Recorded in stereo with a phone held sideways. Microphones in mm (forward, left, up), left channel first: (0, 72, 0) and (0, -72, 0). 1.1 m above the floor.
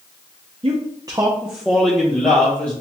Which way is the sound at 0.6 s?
45° right (ahead or behind).